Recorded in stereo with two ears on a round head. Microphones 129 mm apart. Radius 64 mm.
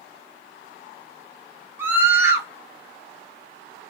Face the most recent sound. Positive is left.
turn(degrees=-15)  # may be behind; listen again after turning